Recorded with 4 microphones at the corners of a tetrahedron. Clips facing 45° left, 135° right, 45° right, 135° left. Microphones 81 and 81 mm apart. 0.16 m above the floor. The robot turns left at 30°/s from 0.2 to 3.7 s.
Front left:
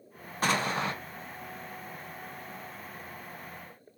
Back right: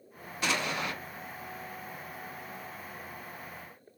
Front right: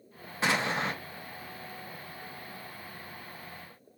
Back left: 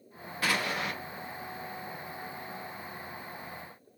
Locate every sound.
0.4 s an explosion: 15° left, 0.9 m; by 0.9 s straight ahead, 0.9 m